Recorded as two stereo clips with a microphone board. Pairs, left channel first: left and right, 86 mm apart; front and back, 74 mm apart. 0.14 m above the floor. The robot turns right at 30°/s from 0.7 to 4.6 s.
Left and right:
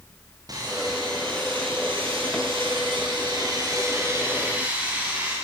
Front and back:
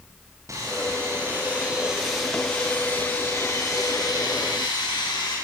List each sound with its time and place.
0.5 s sawing: 130° right, 9.5 m; by 5.4 s 15° right, 9.5 m